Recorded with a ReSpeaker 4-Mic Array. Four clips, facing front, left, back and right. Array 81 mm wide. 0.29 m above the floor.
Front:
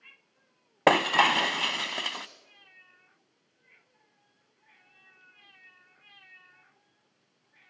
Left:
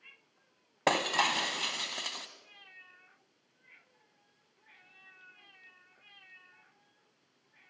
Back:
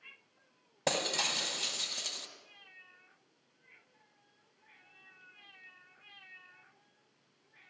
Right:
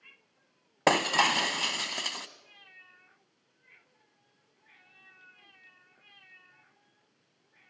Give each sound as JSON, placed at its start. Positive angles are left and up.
{"t": 0.9, "sound": "breaking glass", "azimuth_deg": -15, "distance_m": 0.9}